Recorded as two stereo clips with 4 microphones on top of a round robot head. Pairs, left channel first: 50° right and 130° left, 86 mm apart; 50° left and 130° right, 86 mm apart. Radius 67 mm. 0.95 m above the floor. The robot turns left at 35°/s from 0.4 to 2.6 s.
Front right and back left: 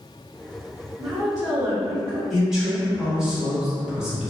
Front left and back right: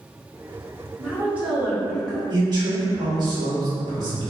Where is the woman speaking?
Straight behind, 1.2 m; by 2.2 s 135° left, 1.2 m.